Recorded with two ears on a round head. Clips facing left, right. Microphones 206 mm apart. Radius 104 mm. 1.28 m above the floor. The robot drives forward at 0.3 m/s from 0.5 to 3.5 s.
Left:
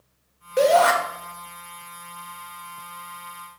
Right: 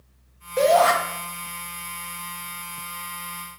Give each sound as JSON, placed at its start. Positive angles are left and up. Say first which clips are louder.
{"t": 0.6, "sound": "a shout", "louder": "left 1 dB", "side_deg": 10, "distance_m": 2.5}